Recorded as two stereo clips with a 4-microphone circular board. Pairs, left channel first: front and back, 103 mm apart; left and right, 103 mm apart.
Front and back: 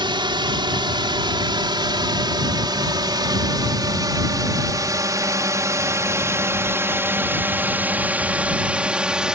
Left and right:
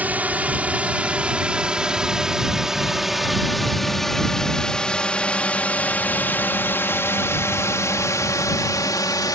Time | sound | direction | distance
0.0 | a drone | 160° right | ?